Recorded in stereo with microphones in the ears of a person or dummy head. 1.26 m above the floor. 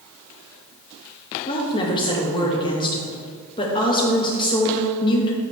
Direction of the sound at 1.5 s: 25° left (ahead or behind).